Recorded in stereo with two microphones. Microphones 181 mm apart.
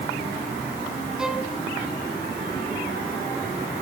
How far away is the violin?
About 2 m.